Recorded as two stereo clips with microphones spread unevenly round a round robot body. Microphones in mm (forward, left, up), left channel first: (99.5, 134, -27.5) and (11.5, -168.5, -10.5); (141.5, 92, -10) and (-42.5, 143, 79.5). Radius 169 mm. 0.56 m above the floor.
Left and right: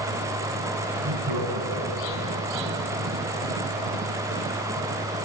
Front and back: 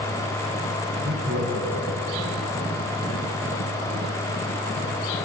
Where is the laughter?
140° right, 6 m; by 2.4 s 130° right, 5 m.